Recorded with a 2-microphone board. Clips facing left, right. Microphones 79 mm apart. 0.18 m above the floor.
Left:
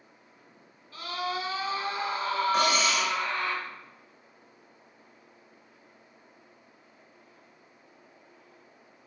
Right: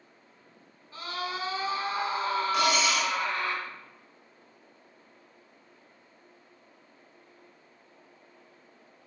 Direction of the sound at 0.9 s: 25° right (ahead or behind).